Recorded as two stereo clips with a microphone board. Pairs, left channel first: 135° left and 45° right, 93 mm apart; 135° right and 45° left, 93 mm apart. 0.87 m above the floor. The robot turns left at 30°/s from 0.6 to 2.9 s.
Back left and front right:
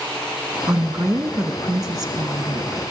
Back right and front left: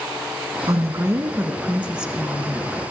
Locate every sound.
0.7 s a woman speaking: 15° left, 1.1 m; by 2.8 s 50° right, 1.1 m